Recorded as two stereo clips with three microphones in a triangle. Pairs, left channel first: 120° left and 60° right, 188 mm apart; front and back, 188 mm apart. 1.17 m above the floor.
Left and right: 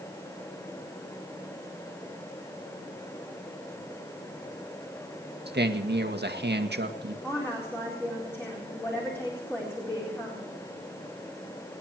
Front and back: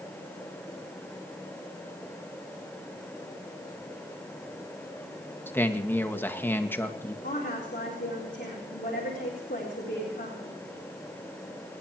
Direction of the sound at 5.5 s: 80° right.